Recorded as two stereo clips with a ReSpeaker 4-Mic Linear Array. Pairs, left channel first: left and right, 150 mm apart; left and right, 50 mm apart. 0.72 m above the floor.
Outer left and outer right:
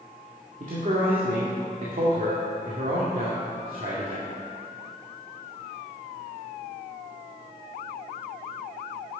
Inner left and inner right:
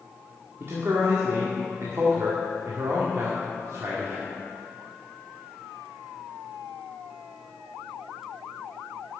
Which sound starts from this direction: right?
A man speaking, at 0.6 s.